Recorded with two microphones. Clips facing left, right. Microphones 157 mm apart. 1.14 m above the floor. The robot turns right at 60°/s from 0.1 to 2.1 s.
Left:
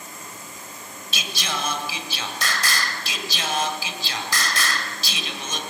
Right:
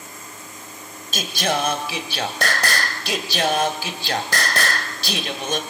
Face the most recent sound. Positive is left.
turn(degrees=-70)